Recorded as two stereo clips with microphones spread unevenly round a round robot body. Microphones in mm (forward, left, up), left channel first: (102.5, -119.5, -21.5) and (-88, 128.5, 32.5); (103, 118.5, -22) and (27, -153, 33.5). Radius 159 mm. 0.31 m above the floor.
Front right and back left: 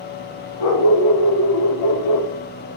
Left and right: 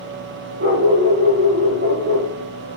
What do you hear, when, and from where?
0.6 s a dog barking: 55° right, 6.5 m